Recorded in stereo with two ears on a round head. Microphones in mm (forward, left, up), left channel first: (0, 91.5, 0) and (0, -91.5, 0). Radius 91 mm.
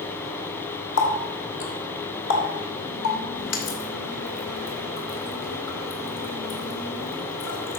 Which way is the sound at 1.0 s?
65° left (ahead or behind).